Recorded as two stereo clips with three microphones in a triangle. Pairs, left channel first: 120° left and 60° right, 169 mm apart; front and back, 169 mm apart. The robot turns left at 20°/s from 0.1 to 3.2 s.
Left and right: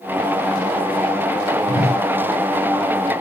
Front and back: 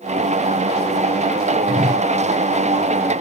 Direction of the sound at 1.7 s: 90° right.